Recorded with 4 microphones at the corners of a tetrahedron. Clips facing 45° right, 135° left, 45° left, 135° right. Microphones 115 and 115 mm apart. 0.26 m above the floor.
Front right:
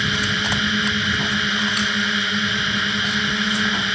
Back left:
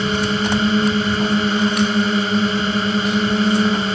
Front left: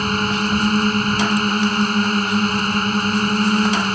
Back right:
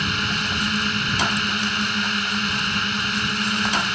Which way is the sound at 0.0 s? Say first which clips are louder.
Back left 6 dB, front left 6 dB; 90° left.